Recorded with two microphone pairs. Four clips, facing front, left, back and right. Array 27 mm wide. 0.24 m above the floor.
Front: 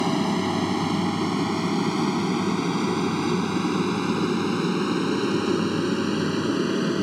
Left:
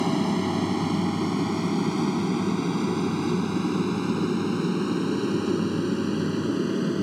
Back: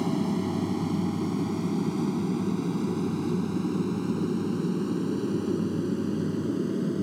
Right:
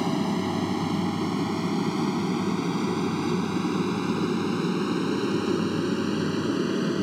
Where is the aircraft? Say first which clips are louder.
Left 2 dB, front 4 dB; 10° left; by 7.0 s 10° right.